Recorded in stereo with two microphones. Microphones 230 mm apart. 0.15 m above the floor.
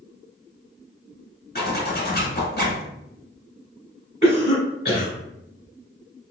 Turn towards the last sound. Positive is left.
turn(degrees=25)  # may be behind; listen again after turning